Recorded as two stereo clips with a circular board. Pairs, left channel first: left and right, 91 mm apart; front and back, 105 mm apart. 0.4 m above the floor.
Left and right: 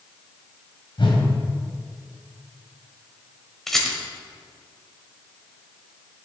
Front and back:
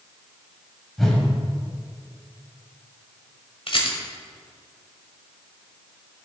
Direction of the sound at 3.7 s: 5° left.